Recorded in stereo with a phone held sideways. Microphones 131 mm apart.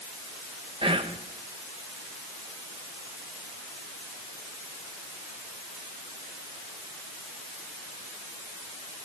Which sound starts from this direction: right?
Whispering, at 0.8 s.